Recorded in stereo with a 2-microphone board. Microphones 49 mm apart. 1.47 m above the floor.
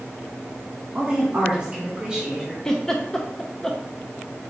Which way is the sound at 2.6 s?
15° left (ahead or behind).